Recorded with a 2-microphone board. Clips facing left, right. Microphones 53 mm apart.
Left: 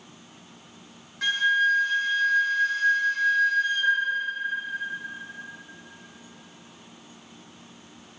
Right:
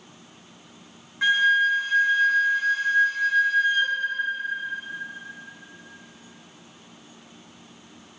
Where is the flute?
20° right (ahead or behind), 0.6 m.